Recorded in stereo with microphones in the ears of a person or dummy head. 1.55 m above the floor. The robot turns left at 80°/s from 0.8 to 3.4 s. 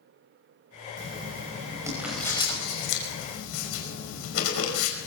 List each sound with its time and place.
1.0 s writing: 85° right, 5 m; by 5.1 s 80° left, 5 m